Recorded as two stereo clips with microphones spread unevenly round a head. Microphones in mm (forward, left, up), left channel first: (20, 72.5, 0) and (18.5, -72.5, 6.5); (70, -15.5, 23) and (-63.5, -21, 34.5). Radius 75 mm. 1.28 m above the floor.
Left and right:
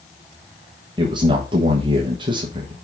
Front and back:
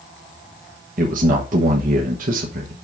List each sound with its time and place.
1.0 s a man speaking: 155° right, 1.2 m